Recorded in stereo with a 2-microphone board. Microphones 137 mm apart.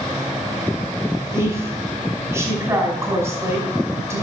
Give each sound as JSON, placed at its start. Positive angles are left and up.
{"t": 1.3, "sound": "a woman speaking", "side_deg": -20, "distance_m": 4.5}